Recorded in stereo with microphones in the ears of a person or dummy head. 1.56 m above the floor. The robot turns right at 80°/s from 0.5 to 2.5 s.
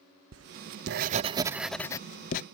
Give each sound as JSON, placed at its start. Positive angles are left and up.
{"t": 0.3, "sound": "writing", "azimuth_deg": -95}